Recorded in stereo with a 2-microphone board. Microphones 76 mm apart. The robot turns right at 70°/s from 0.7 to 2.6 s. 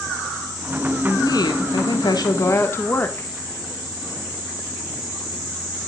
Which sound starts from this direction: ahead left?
A woman speaking, at 1.0 s.